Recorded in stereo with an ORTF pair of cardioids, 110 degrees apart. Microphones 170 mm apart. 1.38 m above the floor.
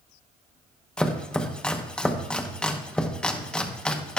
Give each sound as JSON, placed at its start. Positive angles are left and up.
{"t": 1.0, "sound": "chopping", "azimuth_deg": 5, "distance_m": 0.9}